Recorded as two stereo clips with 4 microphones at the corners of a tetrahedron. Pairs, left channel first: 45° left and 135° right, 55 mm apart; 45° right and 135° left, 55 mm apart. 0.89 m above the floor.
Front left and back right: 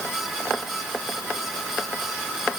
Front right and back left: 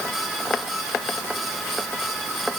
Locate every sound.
Only background noise.